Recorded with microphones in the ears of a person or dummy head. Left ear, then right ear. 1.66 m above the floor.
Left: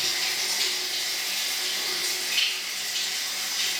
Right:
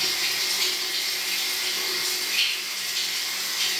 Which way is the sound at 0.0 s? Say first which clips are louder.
Right 2 dB; 30° left (ahead or behind).